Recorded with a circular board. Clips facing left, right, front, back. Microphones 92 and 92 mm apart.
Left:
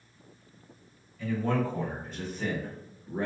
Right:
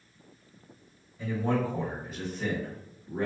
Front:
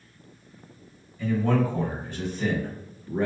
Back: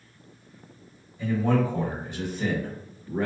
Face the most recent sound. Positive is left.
turn(degrees=95)